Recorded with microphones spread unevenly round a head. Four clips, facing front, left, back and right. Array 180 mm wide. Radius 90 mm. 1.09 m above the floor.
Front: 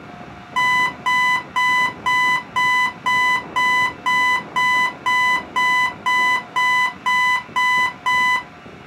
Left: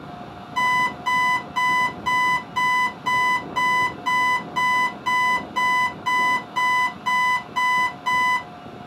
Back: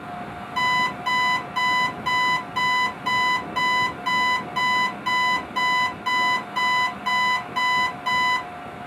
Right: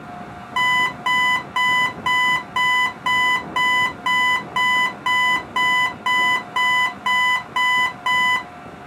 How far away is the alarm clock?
About 1.5 m.